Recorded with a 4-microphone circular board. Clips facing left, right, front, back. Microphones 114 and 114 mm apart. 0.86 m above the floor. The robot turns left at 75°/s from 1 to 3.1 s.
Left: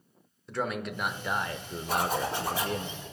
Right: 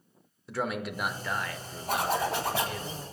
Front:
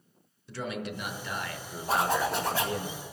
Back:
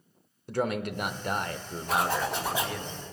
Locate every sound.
0.5 s a man speaking: 175° right, 0.6 m; by 2.9 s 45° left, 0.6 m
1.9 s a zipper: 55° right, 1.9 m; by 2.8 s 125° right, 1.9 m